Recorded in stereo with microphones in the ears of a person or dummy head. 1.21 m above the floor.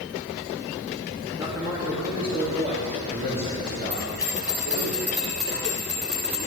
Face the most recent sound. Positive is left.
turn(degrees=-10)  # may be behind; listen again after turning